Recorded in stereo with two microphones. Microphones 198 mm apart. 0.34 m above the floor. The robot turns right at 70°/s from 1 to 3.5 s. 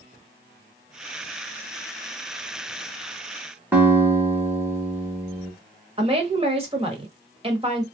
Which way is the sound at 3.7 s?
10° right (ahead or behind).